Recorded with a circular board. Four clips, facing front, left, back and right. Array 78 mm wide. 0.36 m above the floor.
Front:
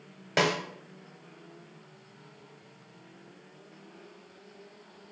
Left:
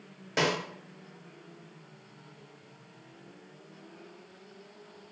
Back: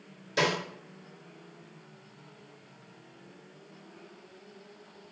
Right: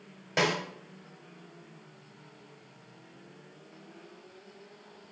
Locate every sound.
0.4 s a snare drum: 10° right, 1.0 m